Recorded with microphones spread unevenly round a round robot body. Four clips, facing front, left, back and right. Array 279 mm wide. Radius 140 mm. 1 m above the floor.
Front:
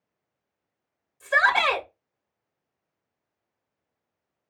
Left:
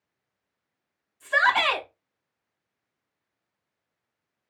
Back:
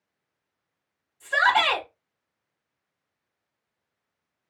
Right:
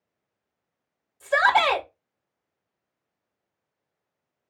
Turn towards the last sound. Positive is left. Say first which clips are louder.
# right 3 dB, even
turn(degrees=-70)